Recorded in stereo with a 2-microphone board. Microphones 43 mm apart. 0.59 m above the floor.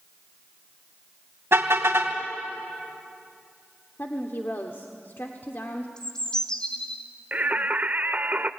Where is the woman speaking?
55° left (ahead or behind), 1.3 m.